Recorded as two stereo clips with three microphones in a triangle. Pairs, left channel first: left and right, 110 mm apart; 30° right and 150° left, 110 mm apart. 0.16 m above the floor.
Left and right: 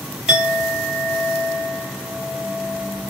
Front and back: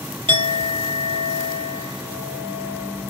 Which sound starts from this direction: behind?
A clink, at 0.3 s.